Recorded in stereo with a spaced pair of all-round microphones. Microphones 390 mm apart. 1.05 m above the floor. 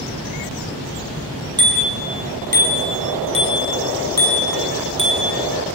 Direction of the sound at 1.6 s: 10° right (ahead or behind).